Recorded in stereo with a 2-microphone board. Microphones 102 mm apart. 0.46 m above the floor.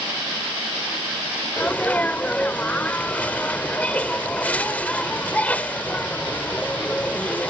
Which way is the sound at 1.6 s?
15° left (ahead or behind).